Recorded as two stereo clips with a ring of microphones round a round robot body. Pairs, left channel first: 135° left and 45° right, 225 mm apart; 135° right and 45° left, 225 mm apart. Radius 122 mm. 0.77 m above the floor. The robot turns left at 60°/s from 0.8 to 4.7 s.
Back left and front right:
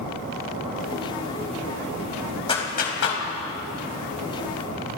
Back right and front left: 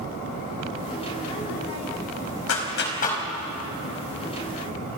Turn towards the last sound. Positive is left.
turn(degrees=70)